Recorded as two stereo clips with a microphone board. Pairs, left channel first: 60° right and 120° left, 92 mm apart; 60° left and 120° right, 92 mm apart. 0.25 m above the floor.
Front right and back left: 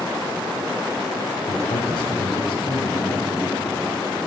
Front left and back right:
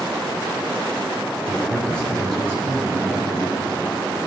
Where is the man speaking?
20° right, 3.5 m.